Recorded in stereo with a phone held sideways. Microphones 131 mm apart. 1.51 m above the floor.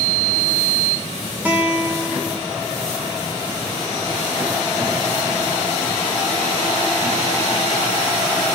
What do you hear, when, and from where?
1.4 s a guitar: 15° right (ahead or behind), 2 m